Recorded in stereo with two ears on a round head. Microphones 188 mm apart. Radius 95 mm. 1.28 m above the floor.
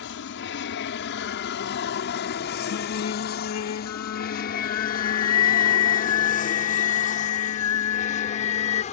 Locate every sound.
0.0 s an aircraft: 60° left (ahead or behind); by 8.9 s 35° left (ahead or behind)
2.7 s singing: 80° left